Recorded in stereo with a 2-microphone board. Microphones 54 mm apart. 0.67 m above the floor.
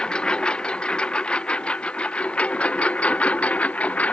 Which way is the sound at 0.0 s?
15° left (ahead or behind).